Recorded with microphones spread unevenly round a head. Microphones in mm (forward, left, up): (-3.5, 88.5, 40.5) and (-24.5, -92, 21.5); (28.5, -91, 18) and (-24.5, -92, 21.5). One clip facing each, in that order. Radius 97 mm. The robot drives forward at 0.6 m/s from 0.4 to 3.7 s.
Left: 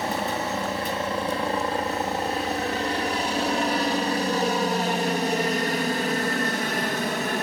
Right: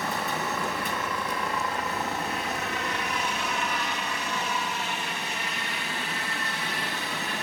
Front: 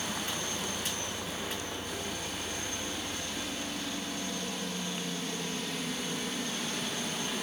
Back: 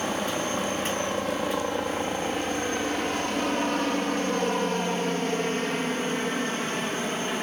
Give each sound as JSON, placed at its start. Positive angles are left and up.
{"t": 0.0, "sound": "a helicopter", "azimuth_deg": 145}